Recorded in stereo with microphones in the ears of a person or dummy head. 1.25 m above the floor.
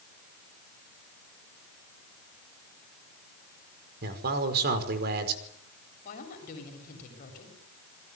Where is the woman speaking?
45° left (ahead or behind), 7.5 m.